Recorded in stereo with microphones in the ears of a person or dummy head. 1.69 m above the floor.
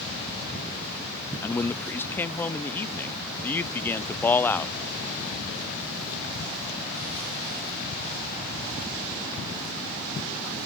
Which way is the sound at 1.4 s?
10° left (ahead or behind).